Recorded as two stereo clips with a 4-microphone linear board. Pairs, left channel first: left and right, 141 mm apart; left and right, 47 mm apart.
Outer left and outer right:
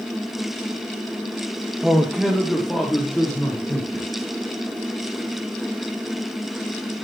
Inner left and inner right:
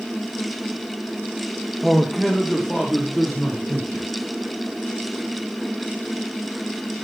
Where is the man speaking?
Centre (ahead or behind), 1.2 m; by 4.1 s 5° left (ahead or behind), 3 m.